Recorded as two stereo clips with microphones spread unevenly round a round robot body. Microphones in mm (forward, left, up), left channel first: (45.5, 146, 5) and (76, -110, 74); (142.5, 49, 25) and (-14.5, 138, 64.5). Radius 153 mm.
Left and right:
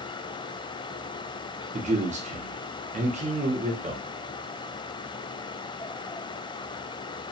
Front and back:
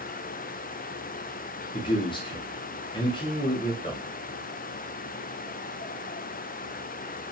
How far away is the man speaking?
About 0.8 m.